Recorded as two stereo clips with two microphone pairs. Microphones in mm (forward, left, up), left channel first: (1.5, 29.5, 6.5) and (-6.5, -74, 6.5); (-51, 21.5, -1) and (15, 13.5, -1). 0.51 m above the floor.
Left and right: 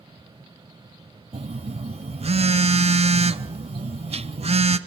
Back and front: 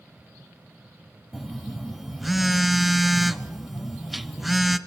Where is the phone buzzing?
100° right, 0.7 m.